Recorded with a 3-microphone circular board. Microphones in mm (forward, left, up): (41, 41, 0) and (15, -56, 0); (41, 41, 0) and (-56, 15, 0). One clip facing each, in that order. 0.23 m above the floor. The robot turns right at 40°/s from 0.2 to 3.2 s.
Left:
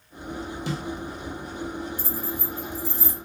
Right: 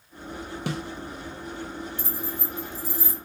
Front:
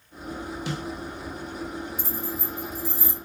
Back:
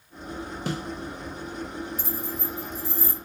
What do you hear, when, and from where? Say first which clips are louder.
0.7 s a snare drum: right 1 dB, back 3 dB; 125° right, 0.6 m; by 0.8 s 120° right, 0.6 m
2.0 s keys jangling: left 2 dB, even; 80° right, 0.9 m; by 3.2 s 35° right, 0.9 m